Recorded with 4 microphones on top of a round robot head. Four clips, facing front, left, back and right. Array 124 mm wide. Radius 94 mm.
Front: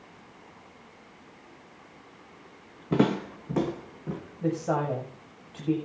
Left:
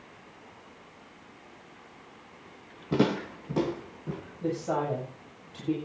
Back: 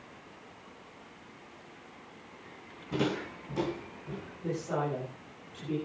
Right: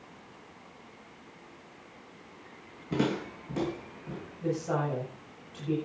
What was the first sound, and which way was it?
Footsteps, 20° left.